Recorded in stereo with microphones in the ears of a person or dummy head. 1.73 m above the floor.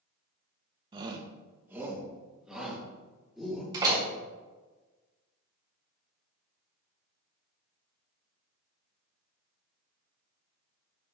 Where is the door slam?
25° right (ahead or behind), 3.5 m.